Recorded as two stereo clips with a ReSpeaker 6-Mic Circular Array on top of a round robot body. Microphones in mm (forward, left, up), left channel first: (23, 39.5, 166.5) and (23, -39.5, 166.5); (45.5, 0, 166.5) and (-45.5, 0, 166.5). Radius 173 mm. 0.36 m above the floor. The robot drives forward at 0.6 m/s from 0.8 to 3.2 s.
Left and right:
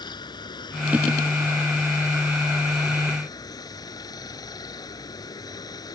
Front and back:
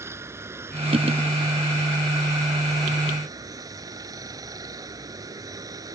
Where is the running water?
115° left; by 6.0 s 130° left.